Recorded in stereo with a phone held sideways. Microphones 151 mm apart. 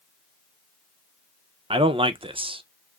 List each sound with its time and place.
1.7 s a man speaking: 35° right (ahead or behind), 0.6 m